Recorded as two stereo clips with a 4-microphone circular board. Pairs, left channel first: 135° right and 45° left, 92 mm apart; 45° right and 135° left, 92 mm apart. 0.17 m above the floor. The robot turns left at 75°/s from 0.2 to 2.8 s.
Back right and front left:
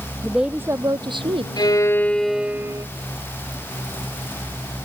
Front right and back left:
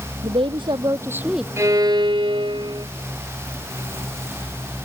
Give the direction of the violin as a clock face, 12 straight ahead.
6 o'clock.